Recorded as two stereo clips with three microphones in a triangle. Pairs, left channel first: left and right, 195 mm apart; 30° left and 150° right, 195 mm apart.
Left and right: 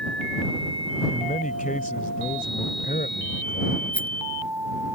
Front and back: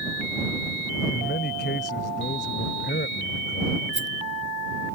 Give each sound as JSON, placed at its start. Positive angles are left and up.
{"t": 1.1, "sound": "a man speaking", "azimuth_deg": 50}
{"t": 3.9, "sound": "a rattle", "azimuth_deg": 10}